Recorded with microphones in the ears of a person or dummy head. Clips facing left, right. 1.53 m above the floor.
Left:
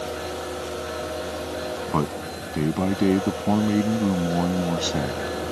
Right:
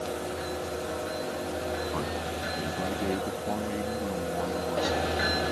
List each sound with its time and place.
1.9 s a man speaking: 80° left; by 5.3 s 70° left (ahead or behind)